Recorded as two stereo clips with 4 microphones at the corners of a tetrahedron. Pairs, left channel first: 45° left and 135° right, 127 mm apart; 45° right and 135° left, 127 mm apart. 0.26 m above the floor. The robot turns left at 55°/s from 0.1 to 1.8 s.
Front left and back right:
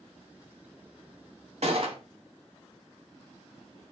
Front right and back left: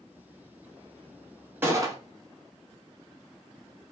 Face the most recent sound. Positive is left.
turn(degrees=-165)